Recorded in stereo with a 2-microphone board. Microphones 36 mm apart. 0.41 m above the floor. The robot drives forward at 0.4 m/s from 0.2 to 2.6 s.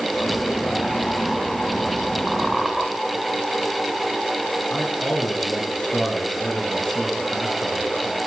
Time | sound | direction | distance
2.3 | a squeak | 5° right (ahead or behind) | 2.5 m
4.7 | a man speaking | 40° left (ahead or behind) | 4.5 m